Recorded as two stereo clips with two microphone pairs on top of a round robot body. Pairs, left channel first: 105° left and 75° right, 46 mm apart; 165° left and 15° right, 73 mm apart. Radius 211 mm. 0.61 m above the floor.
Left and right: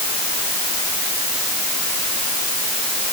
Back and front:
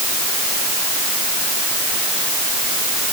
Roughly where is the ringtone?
No ringtone in this recording.